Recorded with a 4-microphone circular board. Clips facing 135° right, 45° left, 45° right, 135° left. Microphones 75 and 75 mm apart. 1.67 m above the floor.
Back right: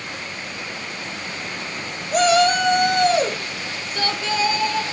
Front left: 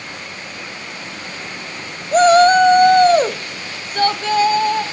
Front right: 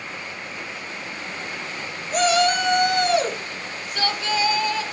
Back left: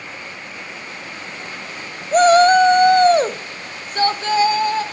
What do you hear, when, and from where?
2.1 s a shout: 95° left, 0.9 m; by 4.8 s 85° left, 2 m